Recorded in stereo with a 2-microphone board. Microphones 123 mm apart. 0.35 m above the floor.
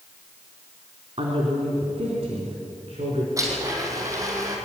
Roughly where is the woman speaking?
Right.